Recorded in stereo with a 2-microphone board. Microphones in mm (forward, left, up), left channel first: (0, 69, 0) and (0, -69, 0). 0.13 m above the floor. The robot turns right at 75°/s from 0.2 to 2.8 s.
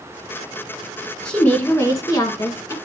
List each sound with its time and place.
1.2 s a woman speaking: 5° left (ahead or behind), 1.1 m; by 2.7 s 20° left (ahead or behind), 1.1 m